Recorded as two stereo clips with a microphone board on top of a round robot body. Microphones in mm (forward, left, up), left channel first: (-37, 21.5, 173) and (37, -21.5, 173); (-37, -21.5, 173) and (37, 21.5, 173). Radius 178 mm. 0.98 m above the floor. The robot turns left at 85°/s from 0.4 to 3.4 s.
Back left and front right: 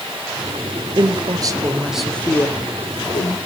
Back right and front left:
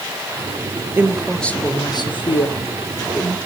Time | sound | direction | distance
1.0 | a woman speaking | 30° right | 1.7 m